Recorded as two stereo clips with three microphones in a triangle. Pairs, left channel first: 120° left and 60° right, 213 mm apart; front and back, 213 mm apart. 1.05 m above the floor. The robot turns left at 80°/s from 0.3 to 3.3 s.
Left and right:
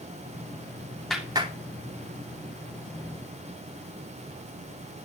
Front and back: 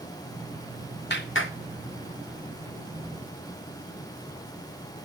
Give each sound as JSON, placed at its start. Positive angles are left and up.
{"t": 1.1, "sound": "a clap", "azimuth_deg": 35, "distance_m": 3.0}